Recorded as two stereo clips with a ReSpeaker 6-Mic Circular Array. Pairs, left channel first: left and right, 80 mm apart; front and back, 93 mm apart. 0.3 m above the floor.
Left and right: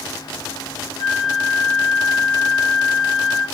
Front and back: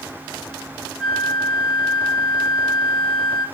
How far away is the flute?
About 1.9 m.